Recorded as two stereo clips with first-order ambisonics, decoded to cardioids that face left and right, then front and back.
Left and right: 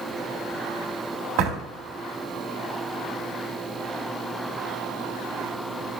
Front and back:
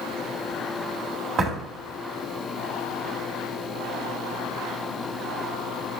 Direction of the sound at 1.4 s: 120° right.